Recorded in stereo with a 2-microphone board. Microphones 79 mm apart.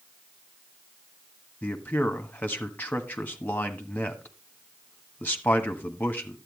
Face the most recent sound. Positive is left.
turn(degrees=25)  # may be behind; listen again after turning